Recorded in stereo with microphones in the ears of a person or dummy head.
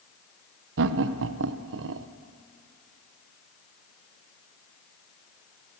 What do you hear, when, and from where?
0.8 s laughter: 70° right (ahead or behind), 0.6 m